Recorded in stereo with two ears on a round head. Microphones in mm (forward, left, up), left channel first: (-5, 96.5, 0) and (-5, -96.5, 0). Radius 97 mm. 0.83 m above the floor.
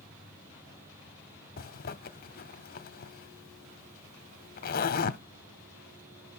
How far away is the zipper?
About 0.8 m.